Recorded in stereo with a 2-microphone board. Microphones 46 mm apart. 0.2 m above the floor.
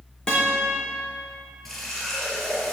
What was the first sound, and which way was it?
A guitar, 15° left (ahead or behind).